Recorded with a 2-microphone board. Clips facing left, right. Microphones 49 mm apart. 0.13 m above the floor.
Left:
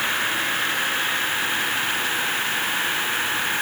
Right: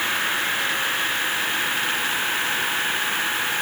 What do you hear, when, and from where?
Only background noise.